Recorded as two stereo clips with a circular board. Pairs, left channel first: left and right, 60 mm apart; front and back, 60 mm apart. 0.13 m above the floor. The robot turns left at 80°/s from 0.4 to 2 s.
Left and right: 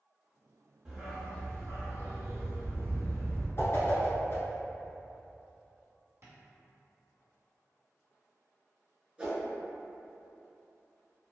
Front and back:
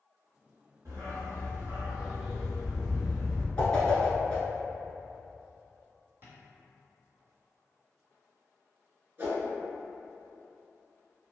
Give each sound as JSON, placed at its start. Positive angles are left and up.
{"t": 0.8, "sound": "a dog barking", "azimuth_deg": -160, "distance_m": 1.1}
{"t": 3.6, "sound": "a whoosh", "azimuth_deg": 70, "distance_m": 0.7}
{"t": 6.2, "sound": "tapping", "azimuth_deg": -130, "distance_m": 1.1}
{"t": 9.2, "sound": "a whoosh", "azimuth_deg": -150, "distance_m": 0.8}